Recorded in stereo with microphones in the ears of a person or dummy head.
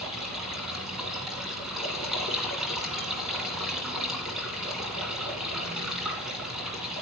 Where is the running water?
Centre (ahead or behind), 2 m.